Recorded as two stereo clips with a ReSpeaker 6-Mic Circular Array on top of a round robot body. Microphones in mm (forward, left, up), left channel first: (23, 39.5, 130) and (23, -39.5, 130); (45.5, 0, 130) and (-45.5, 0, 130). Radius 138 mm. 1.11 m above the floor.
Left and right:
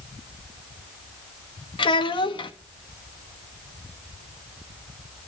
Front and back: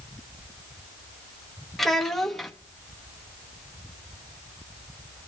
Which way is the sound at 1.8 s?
85° left.